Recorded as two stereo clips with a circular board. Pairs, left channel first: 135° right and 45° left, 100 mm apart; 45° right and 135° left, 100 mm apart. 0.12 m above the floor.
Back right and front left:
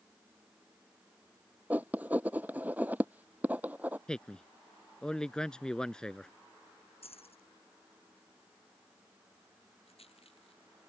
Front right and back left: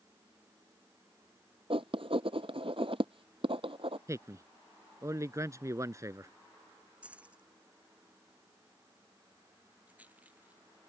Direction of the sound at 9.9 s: 150° right.